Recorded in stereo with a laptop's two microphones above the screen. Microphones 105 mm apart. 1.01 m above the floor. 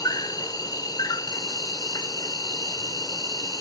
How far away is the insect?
About 0.9 m.